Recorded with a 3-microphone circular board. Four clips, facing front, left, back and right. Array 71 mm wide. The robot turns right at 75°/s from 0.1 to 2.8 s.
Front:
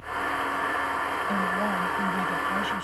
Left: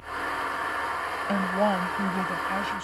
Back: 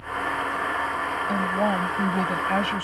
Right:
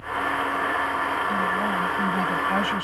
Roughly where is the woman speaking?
Left.